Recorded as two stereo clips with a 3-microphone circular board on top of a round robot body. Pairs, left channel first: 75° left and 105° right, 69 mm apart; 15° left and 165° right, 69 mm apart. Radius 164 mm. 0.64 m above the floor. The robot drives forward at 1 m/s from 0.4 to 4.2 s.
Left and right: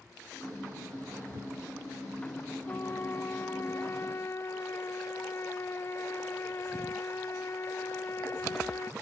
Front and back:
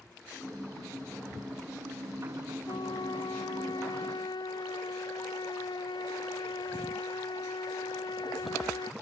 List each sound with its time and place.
2.7 s a trumpet: 15° left; by 8.9 s 20° left